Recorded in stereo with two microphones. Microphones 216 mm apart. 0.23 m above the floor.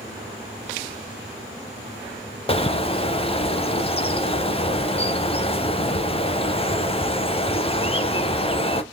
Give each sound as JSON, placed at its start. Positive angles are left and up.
{"t": 2.5, "sound": "a bird", "side_deg": 30, "distance_m": 0.6}